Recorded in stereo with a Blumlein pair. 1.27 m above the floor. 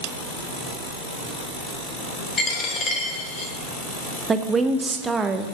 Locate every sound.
2.4 s a dropped coin: 25° left, 2 m
4.3 s a woman speaking: 15° right, 1.0 m